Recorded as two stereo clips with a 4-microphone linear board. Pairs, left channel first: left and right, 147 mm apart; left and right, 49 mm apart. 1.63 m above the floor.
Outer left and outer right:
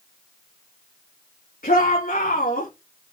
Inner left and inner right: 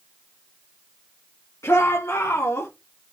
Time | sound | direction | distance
1.6 | a shout | 80° left | 2.5 m